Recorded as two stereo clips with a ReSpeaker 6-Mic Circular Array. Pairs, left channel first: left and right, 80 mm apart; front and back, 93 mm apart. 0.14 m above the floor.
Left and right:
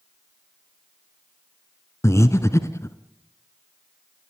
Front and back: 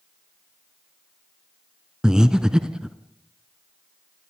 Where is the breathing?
100° left, 1.4 m.